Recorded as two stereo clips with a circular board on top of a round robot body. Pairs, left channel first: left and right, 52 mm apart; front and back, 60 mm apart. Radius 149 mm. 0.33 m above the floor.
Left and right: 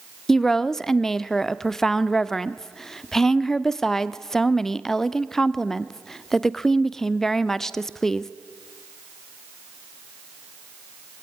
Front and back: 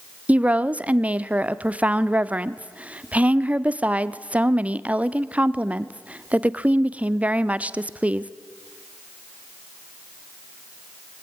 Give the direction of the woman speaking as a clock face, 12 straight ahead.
7 o'clock.